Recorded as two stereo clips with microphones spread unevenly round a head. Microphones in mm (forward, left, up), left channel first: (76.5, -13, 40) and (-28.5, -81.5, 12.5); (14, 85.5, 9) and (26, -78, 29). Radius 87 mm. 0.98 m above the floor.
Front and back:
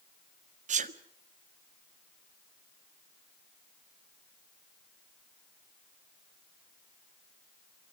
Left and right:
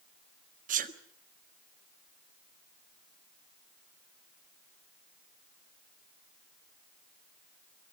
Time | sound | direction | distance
0.7 | a sneeze | 135° right | 1.6 m